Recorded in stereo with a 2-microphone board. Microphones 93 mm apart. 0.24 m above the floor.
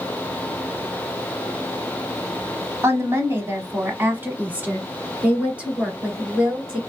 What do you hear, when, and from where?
2.8 s a woman speaking: 30° right (ahead or behind), 1.1 m; by 6.8 s 10° right (ahead or behind), 3 m